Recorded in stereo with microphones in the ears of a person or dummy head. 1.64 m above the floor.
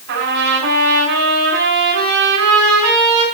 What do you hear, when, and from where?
0.1 s a trumpet: 60° right (ahead or behind), 6.5 m